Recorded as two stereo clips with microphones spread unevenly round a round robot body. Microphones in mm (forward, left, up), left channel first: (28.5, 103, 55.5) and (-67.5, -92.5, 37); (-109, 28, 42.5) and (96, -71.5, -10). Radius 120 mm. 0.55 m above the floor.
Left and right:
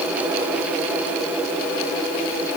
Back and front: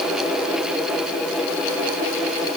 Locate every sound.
Only background noise.